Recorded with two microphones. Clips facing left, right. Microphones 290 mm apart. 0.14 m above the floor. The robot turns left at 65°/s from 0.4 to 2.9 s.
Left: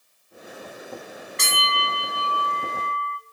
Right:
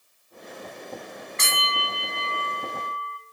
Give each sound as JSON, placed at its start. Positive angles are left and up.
{"t": 1.4, "sound": "a bell", "azimuth_deg": 130, "distance_m": 1.2}